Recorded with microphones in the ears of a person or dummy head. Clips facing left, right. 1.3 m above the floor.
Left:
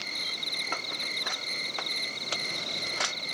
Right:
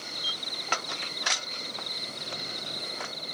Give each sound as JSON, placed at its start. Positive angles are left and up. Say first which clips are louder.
{"t": 0.0, "sound": "an insect", "louder": "right 1 dB", "side_deg": 40}